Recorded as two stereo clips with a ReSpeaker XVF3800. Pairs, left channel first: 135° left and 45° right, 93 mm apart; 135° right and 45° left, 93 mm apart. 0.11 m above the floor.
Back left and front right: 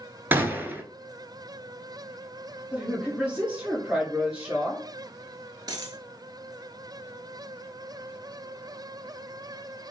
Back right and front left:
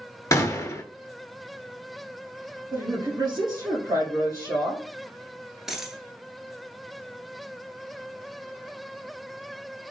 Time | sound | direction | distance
0.3 | a gunshot | 100° right | 0.6 m
2.7 | a woman speaking | 25° left | 2 m
5.7 | a dropped coin | 40° right | 0.7 m